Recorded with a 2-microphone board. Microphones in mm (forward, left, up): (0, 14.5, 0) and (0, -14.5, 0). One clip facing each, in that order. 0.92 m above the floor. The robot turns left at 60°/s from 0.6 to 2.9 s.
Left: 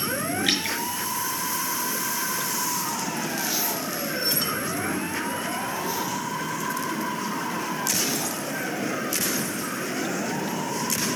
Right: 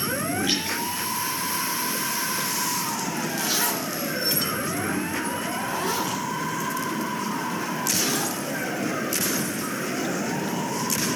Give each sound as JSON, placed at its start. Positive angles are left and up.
{"t": 0.5, "sound": "dripping", "side_deg": 60, "distance_m": 5.0}
{"t": 3.4, "sound": "a zipper", "side_deg": -65, "distance_m": 2.5}